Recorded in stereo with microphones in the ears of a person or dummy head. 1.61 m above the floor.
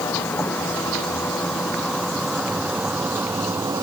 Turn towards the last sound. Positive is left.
turn(degrees=-15)  # may be behind; listen again after turning